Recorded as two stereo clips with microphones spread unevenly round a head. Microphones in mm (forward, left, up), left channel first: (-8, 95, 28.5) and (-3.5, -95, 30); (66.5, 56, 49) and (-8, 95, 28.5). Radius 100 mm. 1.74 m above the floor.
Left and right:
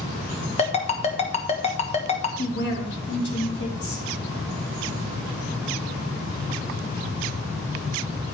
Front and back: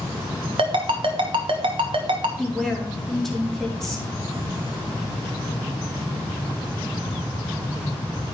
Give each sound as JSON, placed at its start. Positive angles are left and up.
{"t": 0.6, "sound": "a ringtone", "azimuth_deg": 140, "distance_m": 1.0}
{"t": 2.4, "sound": "a woman speaking", "azimuth_deg": 55, "distance_m": 2.5}